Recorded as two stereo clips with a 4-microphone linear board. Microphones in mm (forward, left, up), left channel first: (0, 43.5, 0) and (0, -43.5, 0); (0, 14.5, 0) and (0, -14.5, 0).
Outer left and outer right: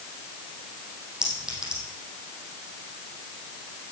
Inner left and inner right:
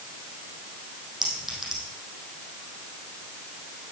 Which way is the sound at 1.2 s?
10° right (ahead or behind).